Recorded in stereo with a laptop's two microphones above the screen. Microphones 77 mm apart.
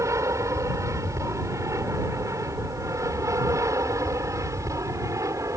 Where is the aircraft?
40° right (ahead or behind); by 5.6 s 45° right (ahead or behind).